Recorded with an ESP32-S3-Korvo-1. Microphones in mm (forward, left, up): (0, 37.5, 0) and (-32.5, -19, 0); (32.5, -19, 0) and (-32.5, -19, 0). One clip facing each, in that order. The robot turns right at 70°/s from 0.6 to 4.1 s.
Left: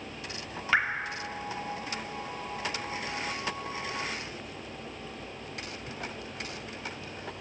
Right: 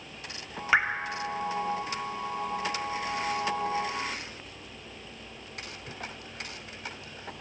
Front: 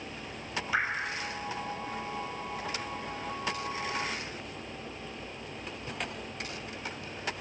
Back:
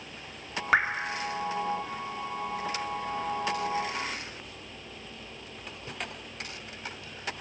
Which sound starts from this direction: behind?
Dripping, at 0.7 s.